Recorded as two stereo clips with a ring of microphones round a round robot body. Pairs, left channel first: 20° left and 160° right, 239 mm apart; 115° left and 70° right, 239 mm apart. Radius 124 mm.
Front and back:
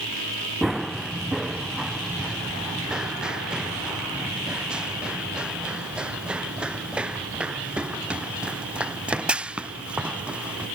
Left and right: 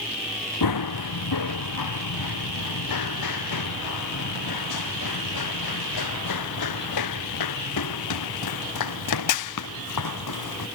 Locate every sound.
0.6 s running footsteps: 115° left